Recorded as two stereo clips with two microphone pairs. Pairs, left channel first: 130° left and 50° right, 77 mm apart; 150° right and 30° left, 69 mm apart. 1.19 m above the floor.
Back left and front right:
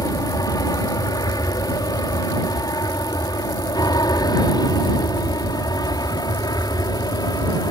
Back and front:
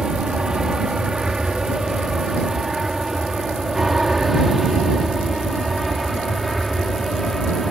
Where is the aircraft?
110° left; by 7.7 s 125° left.